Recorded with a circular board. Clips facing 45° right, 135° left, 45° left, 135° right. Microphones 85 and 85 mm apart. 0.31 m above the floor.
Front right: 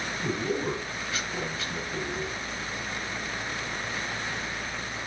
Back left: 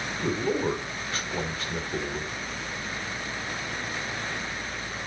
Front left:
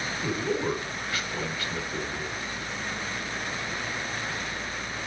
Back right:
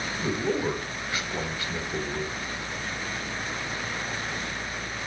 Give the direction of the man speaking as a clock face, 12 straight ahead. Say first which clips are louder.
Back left 3 dB, back right 2 dB; 7 o'clock.